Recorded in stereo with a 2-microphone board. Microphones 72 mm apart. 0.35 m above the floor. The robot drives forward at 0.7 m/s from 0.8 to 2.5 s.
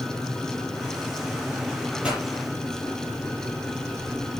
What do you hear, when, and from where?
2.0 s a pop: 15° right (ahead or behind), 5.5 m